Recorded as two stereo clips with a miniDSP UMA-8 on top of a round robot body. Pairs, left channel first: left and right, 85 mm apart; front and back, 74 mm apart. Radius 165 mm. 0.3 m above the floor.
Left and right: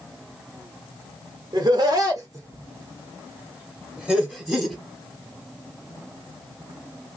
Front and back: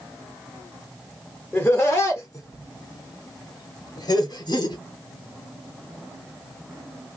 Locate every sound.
1.5 s laughter: 70° right, 1.5 m; by 4.8 s 5° left, 1.7 m